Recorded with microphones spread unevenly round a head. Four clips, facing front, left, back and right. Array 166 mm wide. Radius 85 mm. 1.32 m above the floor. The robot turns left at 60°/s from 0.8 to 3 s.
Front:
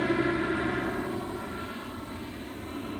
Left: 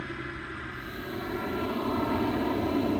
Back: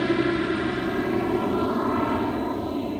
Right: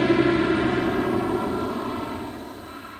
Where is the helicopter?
110° right; by 3.0 s 115° left.